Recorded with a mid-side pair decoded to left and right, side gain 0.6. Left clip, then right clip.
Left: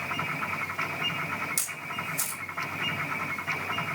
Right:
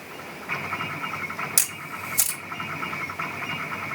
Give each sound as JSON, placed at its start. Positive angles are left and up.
{"t": 1.6, "sound": "a camera shutter", "azimuth_deg": -45, "distance_m": 2.0}